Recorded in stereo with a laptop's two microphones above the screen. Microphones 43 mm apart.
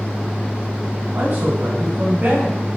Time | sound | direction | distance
1.1 | a man speaking | 40° right (ahead or behind) | 6 m